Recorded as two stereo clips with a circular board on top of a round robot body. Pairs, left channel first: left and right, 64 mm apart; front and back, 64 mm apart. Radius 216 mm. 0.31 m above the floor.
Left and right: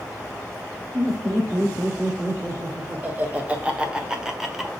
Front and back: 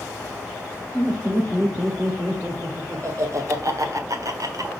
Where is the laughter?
130° right, 2.5 m; by 4.7 s straight behind, 1.8 m.